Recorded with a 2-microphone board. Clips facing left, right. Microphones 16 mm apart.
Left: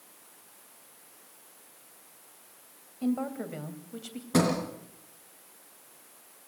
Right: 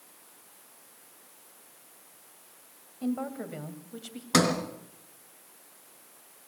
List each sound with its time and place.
3.0 s a woman speaking: 15° left (ahead or behind), 2.5 m; by 4.2 s centre (ahead or behind), 2.5 m
4.3 s a sliding door: 65° right (ahead or behind), 3 m